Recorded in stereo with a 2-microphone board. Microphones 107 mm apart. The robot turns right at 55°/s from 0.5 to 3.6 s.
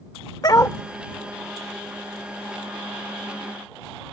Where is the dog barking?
40° left (ahead or behind); by 0.8 s 25° left (ahead or behind).